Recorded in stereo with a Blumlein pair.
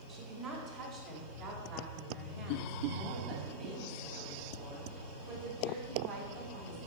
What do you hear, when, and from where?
0.1 s a woman speaking: 40° right, 3.5 m; by 6.8 s 45° right, 7.5 m